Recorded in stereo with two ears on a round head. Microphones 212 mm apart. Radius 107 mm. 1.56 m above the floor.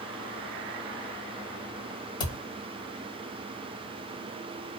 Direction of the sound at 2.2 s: 20° left (ahead or behind).